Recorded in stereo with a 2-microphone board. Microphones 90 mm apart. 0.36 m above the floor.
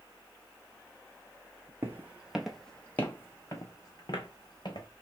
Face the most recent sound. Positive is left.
turn(degrees=60)  # may be behind; listen again after turning